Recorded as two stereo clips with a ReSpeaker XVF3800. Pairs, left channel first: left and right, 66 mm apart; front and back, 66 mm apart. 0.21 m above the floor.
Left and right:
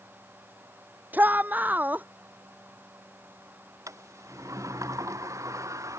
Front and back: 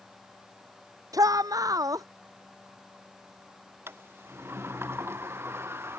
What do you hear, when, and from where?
1.1 s a shout: 155° right
3.9 s a sliding door: 125° right